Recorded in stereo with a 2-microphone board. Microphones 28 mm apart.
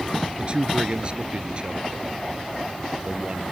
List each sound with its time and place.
0.4 s a man speaking: 35° right (ahead or behind)